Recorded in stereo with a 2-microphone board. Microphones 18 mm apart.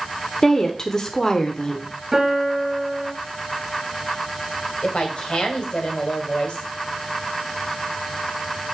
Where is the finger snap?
I don't hear a finger snap.